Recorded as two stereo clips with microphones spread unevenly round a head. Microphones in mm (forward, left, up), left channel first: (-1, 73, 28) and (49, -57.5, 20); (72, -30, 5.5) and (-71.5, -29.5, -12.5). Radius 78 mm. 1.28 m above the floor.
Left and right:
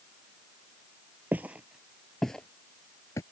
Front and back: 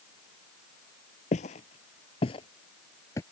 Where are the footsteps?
10° left; by 3.2 s 55° left.